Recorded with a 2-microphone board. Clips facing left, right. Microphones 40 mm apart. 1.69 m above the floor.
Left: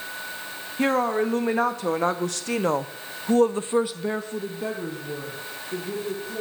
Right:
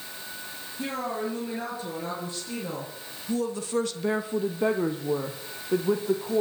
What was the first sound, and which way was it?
A woman speaking, 80° left.